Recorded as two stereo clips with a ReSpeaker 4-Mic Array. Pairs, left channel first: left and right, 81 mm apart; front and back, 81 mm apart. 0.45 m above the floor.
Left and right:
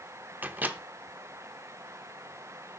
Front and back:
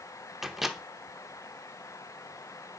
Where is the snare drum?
I don't hear a snare drum.